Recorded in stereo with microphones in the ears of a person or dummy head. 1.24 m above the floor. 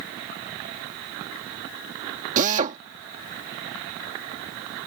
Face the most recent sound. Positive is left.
turn(degrees=-45)  # may be behind; listen again after turning